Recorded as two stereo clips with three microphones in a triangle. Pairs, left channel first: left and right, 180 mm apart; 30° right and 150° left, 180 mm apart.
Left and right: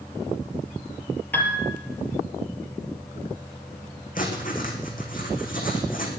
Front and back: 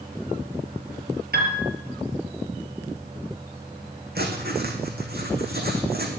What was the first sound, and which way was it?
A piano, 170° left.